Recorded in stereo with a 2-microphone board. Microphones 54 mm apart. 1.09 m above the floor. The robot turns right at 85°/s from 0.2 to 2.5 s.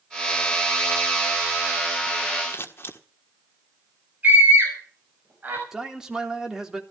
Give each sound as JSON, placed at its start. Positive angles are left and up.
{"t": 2.5, "sound": "scissors", "side_deg": 45, "distance_m": 1.6}
{"t": 4.2, "sound": "a scream", "side_deg": -35, "distance_m": 5.5}
{"t": 5.7, "sound": "a man speaking", "side_deg": -10, "distance_m": 3.0}